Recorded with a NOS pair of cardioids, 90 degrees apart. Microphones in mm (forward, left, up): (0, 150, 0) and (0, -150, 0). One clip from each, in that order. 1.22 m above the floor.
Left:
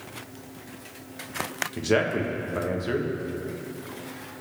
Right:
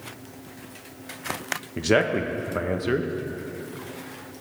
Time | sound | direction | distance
1.8 | a man speaking | 25° right | 1.3 m